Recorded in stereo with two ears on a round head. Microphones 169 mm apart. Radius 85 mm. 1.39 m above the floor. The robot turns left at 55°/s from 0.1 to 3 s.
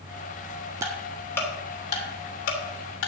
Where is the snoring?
I don't hear snoring.